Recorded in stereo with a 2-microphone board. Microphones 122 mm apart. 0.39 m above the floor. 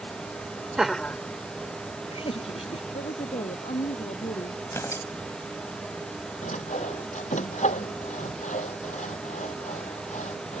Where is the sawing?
80° left.